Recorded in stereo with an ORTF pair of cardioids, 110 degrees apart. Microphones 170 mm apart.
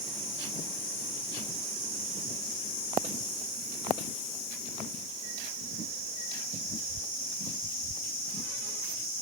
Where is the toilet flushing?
No toilet flushing in this recording.